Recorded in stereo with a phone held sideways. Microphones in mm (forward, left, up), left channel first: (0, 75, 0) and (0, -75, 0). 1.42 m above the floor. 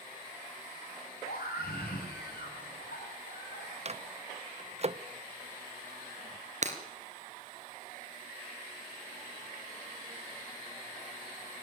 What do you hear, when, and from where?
1.2 s a scream: 90° left, 10 m; by 3.8 s 70° left (ahead or behind), 11.5 m
3.9 s a microwave: 45° right (ahead or behind), 0.6 m
6.6 s breaking glass: 50° right (ahead or behind), 2.5 m